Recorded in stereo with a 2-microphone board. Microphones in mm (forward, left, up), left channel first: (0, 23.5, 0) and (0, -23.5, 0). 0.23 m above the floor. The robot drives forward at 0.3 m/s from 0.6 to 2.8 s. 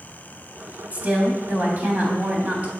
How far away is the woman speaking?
About 1.4 m.